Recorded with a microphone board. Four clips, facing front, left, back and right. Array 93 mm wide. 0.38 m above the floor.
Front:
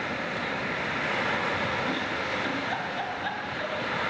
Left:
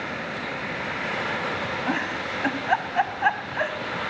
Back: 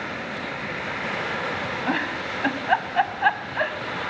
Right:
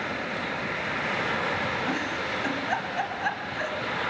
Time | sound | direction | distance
1.9 | a giggle | 150° left | 2.5 m